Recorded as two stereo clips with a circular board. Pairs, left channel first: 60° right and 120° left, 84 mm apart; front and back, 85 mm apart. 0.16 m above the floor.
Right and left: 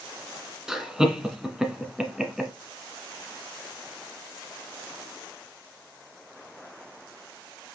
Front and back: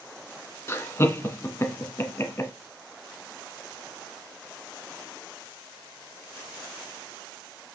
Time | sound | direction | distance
0.7 | laughter | 40° left | 1.6 m